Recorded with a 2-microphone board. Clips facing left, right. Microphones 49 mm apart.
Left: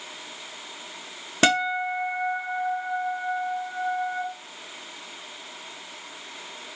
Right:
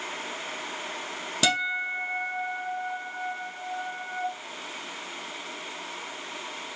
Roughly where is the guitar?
Left.